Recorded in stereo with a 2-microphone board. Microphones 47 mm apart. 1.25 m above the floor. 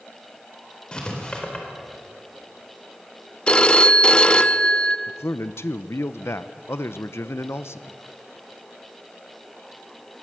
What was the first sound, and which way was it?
Writing, 20° left (ahead or behind).